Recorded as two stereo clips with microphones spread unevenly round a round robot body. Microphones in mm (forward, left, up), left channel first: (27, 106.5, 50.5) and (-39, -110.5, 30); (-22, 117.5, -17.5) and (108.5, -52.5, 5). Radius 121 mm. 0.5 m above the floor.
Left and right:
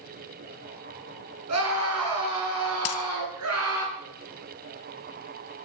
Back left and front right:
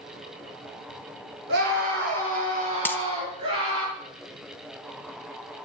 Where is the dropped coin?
45° left, 1.4 m.